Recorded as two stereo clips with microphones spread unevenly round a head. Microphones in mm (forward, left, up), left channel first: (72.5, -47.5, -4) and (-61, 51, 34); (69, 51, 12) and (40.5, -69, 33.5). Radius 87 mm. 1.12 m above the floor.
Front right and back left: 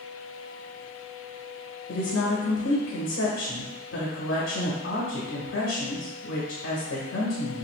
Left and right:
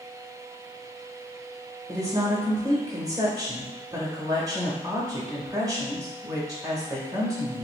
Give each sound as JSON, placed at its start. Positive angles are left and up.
{"t": 1.9, "sound": "a woman speaking", "azimuth_deg": -40, "distance_m": 0.8}